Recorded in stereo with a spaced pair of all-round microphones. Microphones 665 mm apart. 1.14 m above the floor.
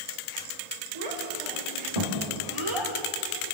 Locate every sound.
0.9 s a child speaking: 55° right (ahead or behind), 3.5 m; by 2.9 s 45° right (ahead or behind), 2.5 m